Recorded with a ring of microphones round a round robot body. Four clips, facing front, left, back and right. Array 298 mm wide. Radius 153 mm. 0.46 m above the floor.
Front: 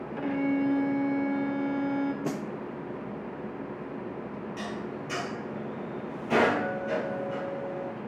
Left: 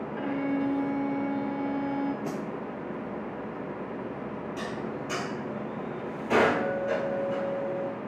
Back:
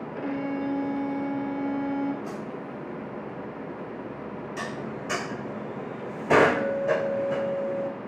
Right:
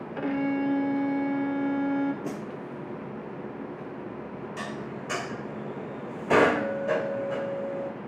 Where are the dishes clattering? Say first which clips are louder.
Left 1 dB, back 2 dB; 155° right, 1.2 m.